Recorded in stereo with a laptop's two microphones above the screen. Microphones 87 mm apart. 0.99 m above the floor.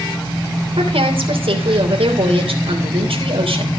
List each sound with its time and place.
0.8 s a woman speaking: 80° right, 3 m